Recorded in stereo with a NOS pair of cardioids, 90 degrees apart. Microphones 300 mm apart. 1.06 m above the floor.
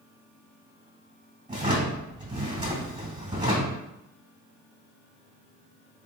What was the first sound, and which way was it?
A drawer, 15° right.